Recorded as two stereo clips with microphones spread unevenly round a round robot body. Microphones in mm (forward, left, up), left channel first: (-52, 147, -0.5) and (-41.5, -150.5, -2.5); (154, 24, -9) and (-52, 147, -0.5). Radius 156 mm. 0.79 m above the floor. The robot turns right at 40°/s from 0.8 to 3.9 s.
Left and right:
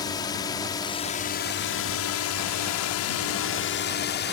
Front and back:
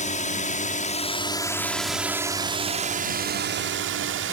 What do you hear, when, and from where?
0.0 s a drone: 15° left; by 4.3 s 140° left